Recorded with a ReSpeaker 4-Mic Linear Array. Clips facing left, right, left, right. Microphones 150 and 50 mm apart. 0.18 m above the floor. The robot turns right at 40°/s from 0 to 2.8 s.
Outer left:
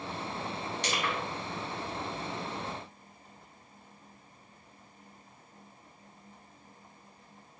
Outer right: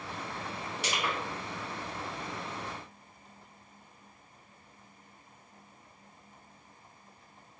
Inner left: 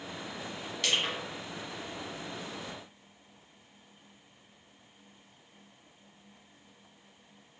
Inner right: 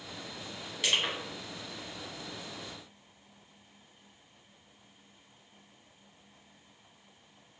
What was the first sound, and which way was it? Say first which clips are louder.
Crushing: even, inner right 1 dB; 5° right (ahead or behind).